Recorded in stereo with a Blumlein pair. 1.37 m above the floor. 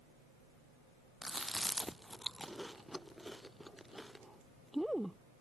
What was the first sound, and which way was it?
Chewing, straight ahead.